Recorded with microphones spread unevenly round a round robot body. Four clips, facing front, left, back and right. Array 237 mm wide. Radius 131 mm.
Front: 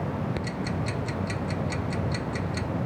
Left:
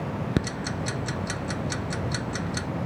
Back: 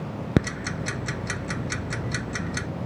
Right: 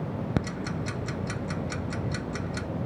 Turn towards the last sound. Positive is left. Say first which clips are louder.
# left 2 dB, back 4 dB
turn(degrees=180)